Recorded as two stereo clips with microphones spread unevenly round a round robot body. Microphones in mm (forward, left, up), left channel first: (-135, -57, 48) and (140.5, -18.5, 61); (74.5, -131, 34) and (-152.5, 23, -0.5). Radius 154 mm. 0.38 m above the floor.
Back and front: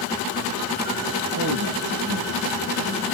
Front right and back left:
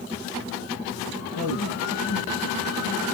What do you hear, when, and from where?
1.4 s a man speaking: 5° left, 8 m